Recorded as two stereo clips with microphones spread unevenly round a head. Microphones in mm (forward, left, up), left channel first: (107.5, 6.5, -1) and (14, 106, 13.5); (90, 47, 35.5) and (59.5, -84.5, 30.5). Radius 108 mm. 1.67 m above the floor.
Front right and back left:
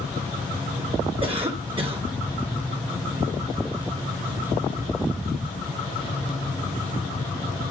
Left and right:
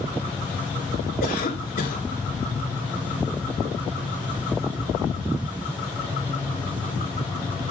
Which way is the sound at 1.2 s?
85° left.